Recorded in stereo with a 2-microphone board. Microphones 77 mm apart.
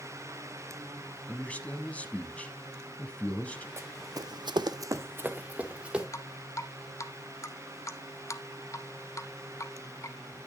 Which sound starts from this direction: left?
Dripping, at 6.1 s.